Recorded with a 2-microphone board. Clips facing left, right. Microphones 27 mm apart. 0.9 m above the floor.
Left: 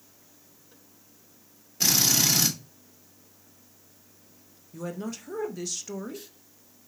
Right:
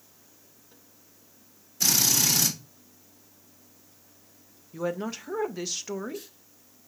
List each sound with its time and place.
1.8 s a drill: 30° left (ahead or behind), 2 m
4.7 s a woman speaking: 25° right (ahead or behind), 0.5 m